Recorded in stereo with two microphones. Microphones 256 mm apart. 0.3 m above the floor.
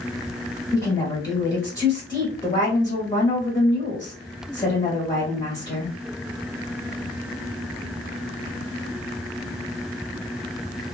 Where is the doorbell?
I don't hear a doorbell.